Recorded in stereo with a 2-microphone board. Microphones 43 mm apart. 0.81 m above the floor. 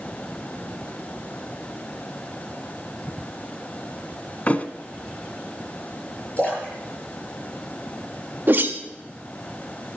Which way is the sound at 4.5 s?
35° left (ahead or behind).